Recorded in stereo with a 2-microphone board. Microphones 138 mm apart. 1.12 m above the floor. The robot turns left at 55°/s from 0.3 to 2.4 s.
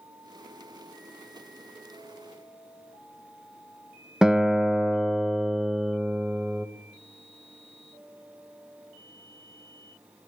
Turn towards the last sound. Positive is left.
turn(degrees=-5)  # may be behind; listen again after turning